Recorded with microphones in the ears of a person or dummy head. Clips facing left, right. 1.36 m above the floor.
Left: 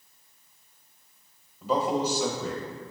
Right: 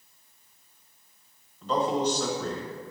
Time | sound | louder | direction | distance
1.6 | a man speaking | even | 10° left (ahead or behind) | 1.1 m